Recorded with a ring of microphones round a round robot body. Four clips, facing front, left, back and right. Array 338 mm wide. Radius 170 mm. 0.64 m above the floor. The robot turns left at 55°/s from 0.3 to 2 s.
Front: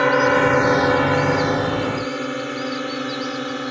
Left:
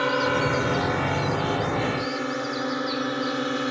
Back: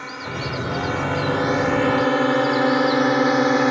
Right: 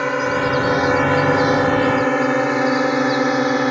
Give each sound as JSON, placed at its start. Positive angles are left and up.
{"t": 0.0, "sound": "a drone", "azimuth_deg": -15}